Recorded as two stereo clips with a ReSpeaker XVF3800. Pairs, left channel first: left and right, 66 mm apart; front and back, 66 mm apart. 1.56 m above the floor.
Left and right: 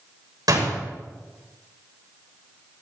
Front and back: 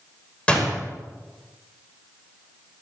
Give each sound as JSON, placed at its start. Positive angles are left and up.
{"t": 0.5, "sound": "a door slam", "azimuth_deg": -70, "distance_m": 6.0}